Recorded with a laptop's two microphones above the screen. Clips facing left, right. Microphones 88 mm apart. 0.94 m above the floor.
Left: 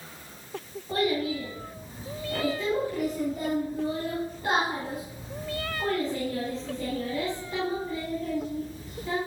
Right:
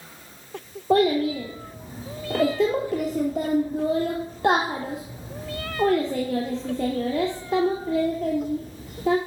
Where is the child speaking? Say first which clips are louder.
Right 7 dB; 75° right (ahead or behind), 1.0 m.